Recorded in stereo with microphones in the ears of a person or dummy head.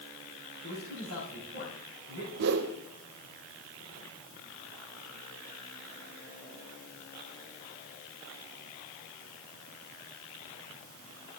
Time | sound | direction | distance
0.6 | a man speaking | 70° left (ahead or behind) | 5.5 m
2.4 | a whoosh | 60° right (ahead or behind) | 0.7 m